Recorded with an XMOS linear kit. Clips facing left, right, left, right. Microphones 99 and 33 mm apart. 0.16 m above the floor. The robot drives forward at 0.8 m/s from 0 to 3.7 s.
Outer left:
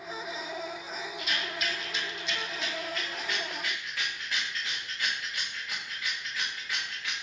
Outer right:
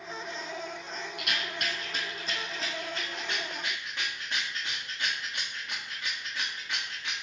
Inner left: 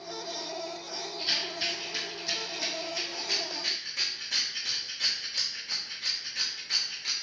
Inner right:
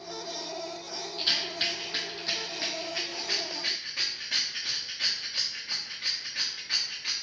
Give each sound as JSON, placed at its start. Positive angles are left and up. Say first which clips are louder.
{"t": 1.2, "sound": "a rattle", "louder": "even, inner right 3 dB", "side_deg": -75, "distance_m": 1.1}